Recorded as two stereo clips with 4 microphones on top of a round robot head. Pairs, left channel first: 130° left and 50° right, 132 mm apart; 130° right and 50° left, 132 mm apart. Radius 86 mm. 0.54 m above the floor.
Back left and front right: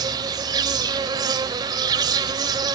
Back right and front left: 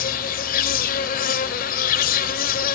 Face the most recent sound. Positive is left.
turn(degrees=-115)